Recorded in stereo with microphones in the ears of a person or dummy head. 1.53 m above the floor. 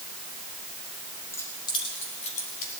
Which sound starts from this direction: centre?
Keys jangling, at 1.3 s.